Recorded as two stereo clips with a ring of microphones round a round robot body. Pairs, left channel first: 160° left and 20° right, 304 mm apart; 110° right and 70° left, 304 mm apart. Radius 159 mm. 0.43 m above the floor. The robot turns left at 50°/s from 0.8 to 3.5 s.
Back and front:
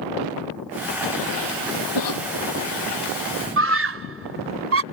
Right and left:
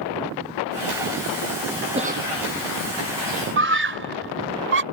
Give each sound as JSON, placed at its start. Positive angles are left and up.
{"t": 1.9, "sound": "a cough", "azimuth_deg": 140}
{"t": 3.6, "sound": "a scream", "azimuth_deg": 20}